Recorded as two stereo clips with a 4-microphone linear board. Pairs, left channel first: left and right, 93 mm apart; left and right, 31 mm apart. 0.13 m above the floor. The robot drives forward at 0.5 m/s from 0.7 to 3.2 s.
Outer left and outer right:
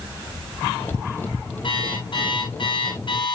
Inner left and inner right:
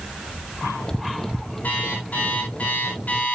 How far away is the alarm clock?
About 7 m.